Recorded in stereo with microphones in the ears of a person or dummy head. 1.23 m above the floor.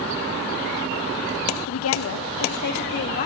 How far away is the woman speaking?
About 1.0 m.